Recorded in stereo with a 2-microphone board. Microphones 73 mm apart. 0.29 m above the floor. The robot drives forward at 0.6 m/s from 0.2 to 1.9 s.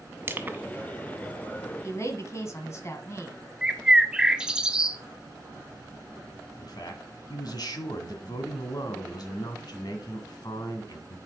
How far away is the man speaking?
About 1.9 m.